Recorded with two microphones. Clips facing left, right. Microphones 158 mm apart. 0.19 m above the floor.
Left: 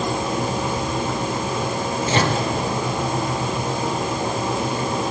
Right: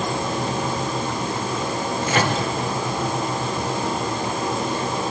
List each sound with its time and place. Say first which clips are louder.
2.1 s a microwave: left 1 dB; 30° left (ahead or behind), 3.5 m